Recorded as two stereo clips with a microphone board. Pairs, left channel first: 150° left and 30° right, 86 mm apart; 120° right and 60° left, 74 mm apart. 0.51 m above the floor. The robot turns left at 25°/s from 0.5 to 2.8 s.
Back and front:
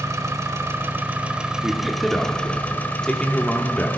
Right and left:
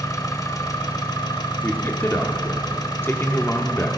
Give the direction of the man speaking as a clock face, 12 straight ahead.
4 o'clock.